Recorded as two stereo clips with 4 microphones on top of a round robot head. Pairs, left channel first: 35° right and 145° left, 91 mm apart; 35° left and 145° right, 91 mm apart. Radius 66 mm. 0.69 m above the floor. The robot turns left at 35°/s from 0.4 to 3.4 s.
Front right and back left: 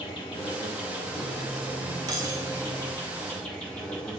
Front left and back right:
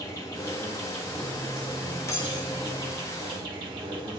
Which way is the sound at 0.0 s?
15° right.